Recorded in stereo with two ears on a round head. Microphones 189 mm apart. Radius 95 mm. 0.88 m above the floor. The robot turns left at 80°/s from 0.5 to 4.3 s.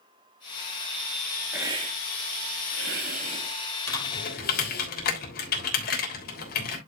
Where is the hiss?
5° right (ahead or behind), 2.5 m; by 4.9 s 50° left (ahead or behind), 2.5 m.